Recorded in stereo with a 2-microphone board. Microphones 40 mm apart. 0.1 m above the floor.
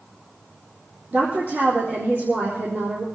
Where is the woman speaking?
55° right (ahead or behind), 4 m.